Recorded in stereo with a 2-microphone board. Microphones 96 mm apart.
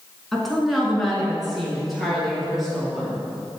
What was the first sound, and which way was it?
A woman speaking, centre (ahead or behind).